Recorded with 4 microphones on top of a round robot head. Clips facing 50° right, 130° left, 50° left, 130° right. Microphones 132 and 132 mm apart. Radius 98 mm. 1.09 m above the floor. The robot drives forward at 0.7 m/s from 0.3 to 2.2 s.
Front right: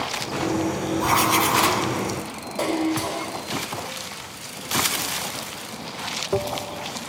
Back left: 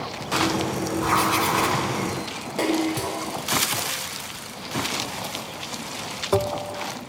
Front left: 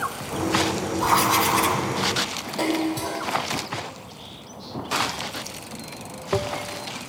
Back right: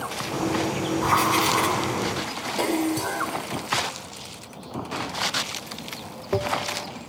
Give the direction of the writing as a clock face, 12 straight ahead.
12 o'clock.